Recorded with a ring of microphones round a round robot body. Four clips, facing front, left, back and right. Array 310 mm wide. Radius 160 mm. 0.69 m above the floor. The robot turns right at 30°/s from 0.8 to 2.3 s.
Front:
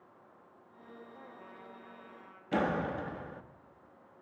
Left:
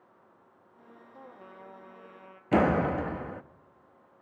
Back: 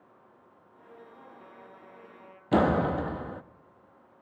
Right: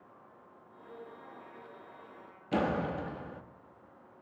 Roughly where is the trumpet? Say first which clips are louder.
Left 1 dB, back 1 dB; left.